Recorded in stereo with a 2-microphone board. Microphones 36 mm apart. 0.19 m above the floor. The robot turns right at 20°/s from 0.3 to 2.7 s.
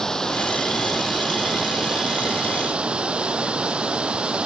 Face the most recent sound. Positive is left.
turn(degrees=-150)